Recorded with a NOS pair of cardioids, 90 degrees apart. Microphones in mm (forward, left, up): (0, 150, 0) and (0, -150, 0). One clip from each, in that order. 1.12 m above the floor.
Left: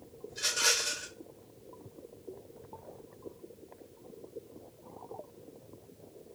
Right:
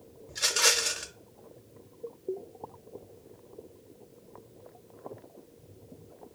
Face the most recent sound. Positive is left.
turn(degrees=-70)